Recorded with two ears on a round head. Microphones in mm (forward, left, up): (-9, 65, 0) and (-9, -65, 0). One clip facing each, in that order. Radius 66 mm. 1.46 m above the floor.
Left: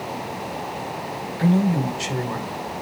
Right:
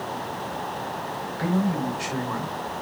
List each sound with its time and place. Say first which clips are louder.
1.4 s a man speaking: left 5 dB; 25° left (ahead or behind), 5.5 m; by 2.8 s 40° left (ahead or behind), 6 m